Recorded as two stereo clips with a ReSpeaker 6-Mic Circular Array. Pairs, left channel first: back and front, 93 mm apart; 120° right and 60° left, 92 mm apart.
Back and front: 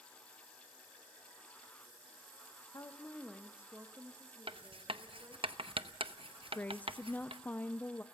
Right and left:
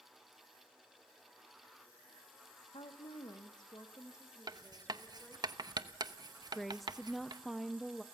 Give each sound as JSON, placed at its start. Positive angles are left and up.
{"t": 2.7, "sound": "a woman speaking", "azimuth_deg": -130, "distance_m": 0.8}
{"t": 4.5, "sound": "writing", "azimuth_deg": 15, "distance_m": 0.8}
{"t": 6.5, "sound": "a woman speaking", "azimuth_deg": 150, "distance_m": 0.5}